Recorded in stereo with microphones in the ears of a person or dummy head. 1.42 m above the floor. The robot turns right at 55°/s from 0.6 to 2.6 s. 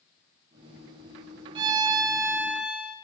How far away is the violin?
About 0.7 m.